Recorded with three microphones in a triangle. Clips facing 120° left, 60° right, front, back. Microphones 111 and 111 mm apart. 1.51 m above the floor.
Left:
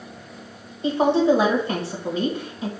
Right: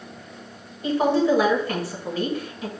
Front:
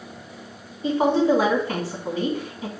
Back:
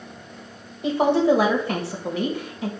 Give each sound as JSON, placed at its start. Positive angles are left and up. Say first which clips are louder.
{"t": 0.8, "sound": "a woman speaking", "louder": "left 2 dB, back 1 dB", "azimuth_deg": -175, "distance_m": 1.5}